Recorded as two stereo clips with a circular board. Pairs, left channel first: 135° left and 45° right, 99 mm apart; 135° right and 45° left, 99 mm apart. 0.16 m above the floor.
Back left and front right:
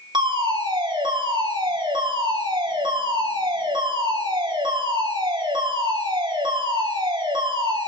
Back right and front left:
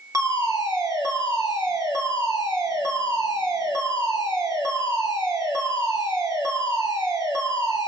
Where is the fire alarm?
10° right, 6 m.